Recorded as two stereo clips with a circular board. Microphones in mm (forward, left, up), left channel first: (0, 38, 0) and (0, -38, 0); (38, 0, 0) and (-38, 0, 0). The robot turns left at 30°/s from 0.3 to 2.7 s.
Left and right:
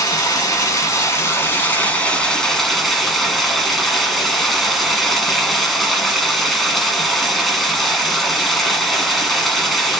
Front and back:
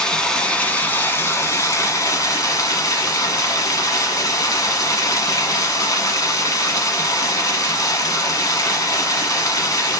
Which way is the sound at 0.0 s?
75° left.